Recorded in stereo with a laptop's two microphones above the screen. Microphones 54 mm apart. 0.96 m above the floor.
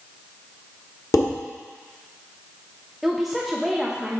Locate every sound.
1.1 s dishes clattering: 85° left, 1.4 m
3.0 s a woman speaking: centre (ahead or behind), 0.6 m